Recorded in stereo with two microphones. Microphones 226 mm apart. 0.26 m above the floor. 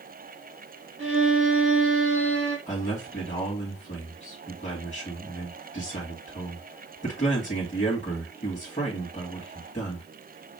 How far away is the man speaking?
About 1.9 m.